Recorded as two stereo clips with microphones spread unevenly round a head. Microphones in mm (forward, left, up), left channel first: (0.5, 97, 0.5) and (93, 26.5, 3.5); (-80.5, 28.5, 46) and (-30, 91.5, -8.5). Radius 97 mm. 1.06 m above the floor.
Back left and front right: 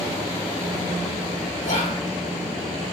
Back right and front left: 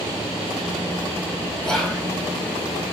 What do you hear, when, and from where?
1.6 s whispering: 135° left, 1.4 m